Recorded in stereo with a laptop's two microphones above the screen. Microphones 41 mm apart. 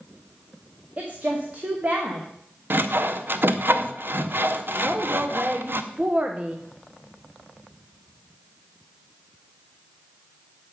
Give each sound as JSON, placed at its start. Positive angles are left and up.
{"t": 1.0, "sound": "a woman speaking", "side_deg": -35, "distance_m": 0.9}
{"t": 2.7, "sound": "sawing", "side_deg": -55, "distance_m": 0.6}
{"t": 4.8, "sound": "a woman speaking", "side_deg": -30, "distance_m": 0.7}